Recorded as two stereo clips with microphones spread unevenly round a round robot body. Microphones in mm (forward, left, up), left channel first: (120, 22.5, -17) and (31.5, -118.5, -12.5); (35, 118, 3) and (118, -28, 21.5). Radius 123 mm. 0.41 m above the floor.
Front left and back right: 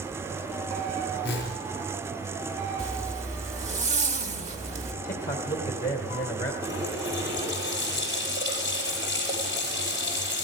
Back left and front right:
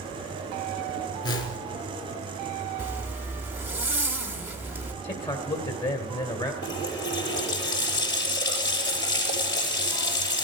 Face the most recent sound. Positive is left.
turn(degrees=160)